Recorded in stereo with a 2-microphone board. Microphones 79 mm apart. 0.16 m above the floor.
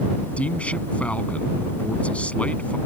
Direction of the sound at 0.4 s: 15° left (ahead or behind).